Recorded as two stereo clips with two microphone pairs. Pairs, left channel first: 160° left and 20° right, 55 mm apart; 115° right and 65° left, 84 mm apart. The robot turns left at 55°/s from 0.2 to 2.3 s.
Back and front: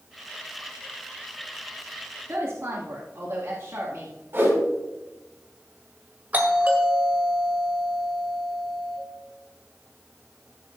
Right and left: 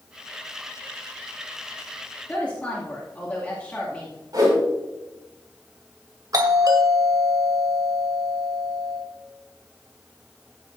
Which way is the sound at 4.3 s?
20° left.